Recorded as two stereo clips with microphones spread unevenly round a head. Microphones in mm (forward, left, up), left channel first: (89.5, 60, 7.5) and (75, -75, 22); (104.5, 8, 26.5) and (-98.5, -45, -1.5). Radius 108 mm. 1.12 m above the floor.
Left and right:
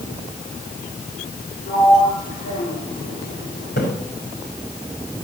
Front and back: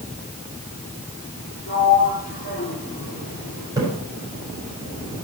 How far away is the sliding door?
About 6 m.